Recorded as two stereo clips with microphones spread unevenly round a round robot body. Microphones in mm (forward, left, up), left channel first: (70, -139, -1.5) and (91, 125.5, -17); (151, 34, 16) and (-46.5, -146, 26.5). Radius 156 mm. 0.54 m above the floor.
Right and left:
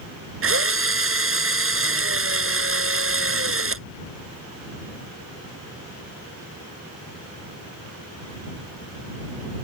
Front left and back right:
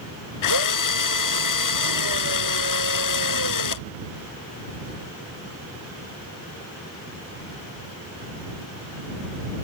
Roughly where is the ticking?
No ticking in this recording.